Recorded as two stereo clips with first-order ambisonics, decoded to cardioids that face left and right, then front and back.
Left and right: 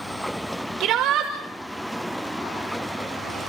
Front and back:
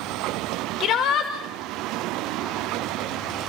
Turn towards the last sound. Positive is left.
turn(degrees=-50)